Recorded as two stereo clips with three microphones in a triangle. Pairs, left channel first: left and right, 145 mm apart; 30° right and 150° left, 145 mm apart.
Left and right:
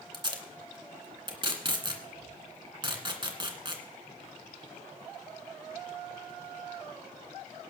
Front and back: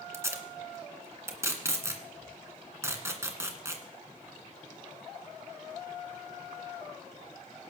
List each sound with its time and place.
0.1 s tape being pulled: 140° right, 2.0 m